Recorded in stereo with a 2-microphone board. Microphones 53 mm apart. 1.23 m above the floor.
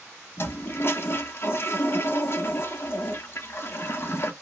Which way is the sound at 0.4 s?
45° left (ahead or behind).